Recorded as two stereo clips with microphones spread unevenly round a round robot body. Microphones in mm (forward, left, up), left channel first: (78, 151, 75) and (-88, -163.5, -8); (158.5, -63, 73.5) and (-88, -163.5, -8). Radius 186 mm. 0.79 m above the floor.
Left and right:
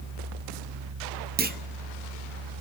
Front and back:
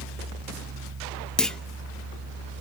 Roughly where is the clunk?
Right.